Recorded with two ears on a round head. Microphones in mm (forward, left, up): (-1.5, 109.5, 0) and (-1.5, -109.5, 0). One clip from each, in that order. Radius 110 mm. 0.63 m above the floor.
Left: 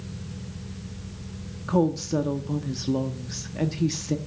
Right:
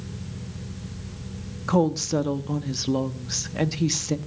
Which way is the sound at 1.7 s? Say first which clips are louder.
Right 2 dB; 25° right (ahead or behind).